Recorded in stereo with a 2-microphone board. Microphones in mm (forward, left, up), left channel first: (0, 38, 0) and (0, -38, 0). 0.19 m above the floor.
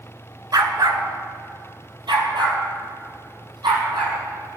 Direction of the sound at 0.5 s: 60° right (ahead or behind).